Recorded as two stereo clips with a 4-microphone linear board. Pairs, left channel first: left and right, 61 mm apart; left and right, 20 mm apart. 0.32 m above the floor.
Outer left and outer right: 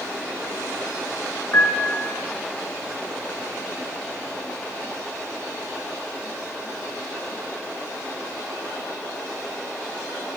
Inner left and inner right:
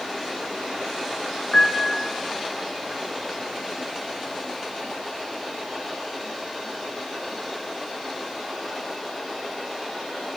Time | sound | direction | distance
1.5 | a piano | 40° left (ahead or behind) | 2 m